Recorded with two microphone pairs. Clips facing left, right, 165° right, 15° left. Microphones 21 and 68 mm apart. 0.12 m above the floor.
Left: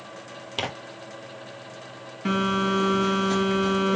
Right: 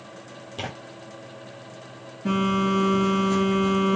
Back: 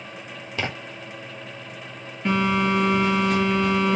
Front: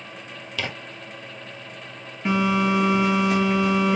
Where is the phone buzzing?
95° left, 1.7 m.